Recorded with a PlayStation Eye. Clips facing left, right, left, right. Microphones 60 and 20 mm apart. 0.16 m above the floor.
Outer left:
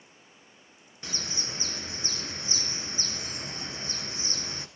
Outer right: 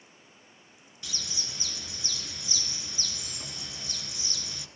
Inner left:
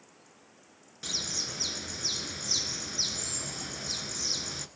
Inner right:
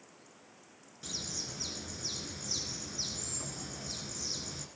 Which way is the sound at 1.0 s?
40° left (ahead or behind).